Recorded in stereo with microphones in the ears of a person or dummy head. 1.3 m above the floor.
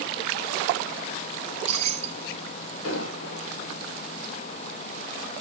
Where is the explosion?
85° left, 4.5 m.